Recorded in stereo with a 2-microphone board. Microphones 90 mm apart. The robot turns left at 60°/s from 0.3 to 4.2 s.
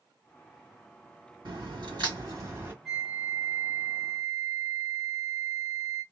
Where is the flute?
5° left (ahead or behind), 1.5 m; by 6.0 s 25° right (ahead or behind), 1.5 m.